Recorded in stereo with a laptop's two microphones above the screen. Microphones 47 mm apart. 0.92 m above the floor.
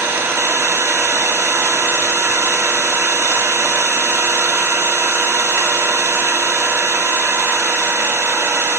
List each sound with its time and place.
0.0 s an engine running: 75° right (ahead or behind), 0.9 m